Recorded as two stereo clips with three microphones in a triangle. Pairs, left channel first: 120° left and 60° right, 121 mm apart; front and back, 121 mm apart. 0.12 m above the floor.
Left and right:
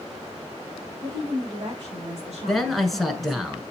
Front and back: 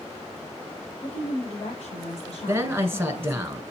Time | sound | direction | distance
1.0 | a woman speaking | 15° right | 4.5 m
2.5 | a man speaking | 155° right | 1.3 m